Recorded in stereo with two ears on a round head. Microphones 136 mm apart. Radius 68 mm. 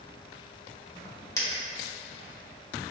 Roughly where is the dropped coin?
Left.